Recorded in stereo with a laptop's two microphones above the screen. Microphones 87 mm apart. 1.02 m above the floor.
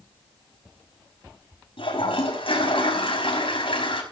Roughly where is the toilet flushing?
Left.